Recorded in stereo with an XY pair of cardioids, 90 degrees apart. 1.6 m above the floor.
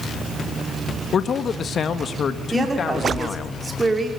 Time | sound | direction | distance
1.1 | a man speaking | 55° left | 1.7 m
2.5 | a woman speaking | 25° right | 5.5 m